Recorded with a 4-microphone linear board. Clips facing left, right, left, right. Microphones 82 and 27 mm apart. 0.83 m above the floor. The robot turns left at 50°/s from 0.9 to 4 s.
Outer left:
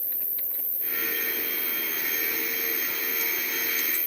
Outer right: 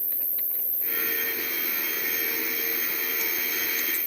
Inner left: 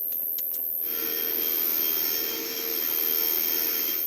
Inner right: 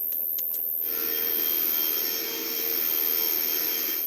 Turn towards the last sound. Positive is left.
turn(degrees=-80)